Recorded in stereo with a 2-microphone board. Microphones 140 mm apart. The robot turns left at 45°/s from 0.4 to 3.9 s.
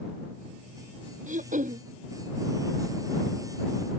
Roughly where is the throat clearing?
Right.